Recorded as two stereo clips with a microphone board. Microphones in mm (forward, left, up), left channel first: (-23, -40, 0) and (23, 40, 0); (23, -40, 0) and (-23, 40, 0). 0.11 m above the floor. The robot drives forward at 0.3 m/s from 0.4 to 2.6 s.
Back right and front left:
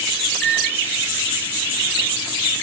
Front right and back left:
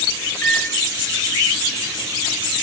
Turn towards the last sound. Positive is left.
turn(degrees=-150)